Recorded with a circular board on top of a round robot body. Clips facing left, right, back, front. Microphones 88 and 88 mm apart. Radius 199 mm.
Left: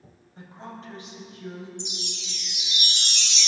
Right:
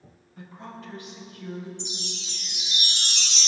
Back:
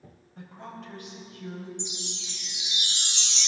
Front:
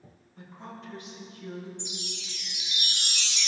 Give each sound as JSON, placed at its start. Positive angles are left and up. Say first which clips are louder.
{"t": 0.4, "sound": "a woman speaking", "louder": "even, back 2 dB", "azimuth_deg": 150, "distance_m": 4.5}
{"t": 1.8, "sound": "a chime", "louder": "even, back 1 dB", "azimuth_deg": -125, "distance_m": 1.1}